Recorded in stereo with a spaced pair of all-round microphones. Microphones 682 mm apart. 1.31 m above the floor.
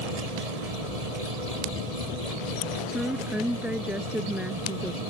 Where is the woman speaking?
Centre (ahead or behind).